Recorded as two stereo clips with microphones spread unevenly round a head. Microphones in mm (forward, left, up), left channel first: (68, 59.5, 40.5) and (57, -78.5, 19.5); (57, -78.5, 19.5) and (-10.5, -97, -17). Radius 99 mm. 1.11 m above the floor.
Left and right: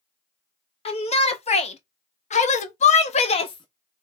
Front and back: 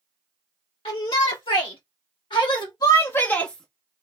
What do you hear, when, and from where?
0.8 s a shout: 40° left, 1.5 m; by 4.0 s 155° left, 0.7 m